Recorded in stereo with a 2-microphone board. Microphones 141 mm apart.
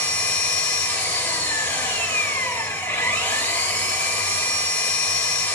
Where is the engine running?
15° left (ahead or behind), 2 m.